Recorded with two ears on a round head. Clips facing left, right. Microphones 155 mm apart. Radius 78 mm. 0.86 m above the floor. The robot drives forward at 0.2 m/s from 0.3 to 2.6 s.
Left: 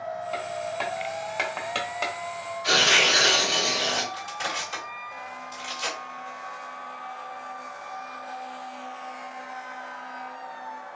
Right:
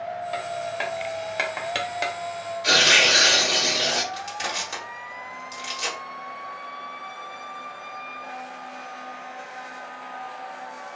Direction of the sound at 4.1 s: 55° right (ahead or behind).